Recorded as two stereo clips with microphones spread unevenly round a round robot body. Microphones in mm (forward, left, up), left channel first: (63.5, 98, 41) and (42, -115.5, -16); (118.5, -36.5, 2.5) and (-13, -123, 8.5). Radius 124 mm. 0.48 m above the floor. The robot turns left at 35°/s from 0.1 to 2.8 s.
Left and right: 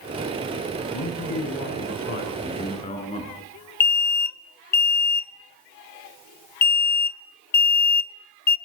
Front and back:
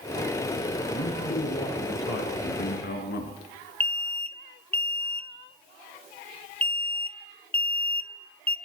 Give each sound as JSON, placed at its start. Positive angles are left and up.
{"t": 0.9, "sound": "a man speaking", "azimuth_deg": 90, "distance_m": 5.5}
{"t": 3.8, "sound": "an alarm", "azimuth_deg": 100, "distance_m": 0.7}